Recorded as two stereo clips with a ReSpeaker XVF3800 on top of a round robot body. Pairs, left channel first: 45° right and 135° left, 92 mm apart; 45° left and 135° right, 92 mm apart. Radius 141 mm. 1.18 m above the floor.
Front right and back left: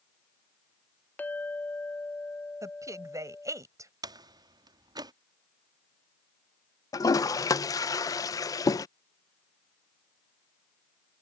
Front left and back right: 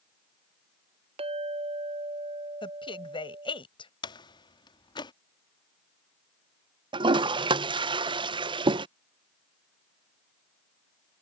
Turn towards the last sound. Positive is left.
turn(degrees=-100)